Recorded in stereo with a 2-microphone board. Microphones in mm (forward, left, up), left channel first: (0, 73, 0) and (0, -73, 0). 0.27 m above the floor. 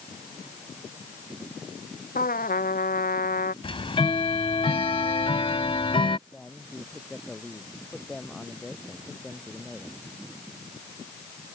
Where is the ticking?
40° left (ahead or behind).